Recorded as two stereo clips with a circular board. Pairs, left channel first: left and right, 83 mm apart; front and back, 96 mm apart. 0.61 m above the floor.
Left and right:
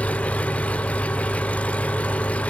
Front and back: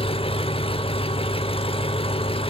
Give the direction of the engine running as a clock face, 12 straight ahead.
11 o'clock.